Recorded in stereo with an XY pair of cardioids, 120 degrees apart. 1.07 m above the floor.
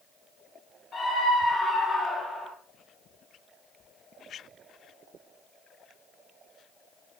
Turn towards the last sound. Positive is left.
turn(degrees=35)